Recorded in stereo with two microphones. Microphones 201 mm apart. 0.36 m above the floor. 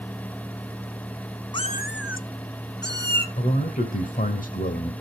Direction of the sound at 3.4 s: 40° left (ahead or behind).